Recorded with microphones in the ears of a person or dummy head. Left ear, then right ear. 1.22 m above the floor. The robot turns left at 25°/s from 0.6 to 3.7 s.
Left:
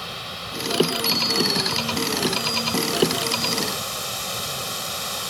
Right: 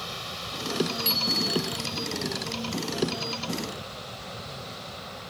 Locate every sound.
0.0 s running water: 175° left; by 5.3 s 95° left
1.1 s a bicycle bell: 20° right (ahead or behind); by 1.9 s centre (ahead or behind)